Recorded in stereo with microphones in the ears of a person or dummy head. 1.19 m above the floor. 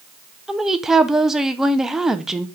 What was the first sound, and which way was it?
A woman speaking, 10° right (ahead or behind).